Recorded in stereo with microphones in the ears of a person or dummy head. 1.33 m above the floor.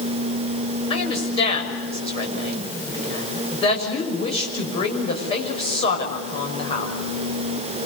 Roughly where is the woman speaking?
Left.